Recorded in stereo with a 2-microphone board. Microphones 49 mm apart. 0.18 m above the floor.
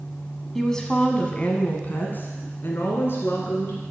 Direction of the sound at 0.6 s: 5° left (ahead or behind).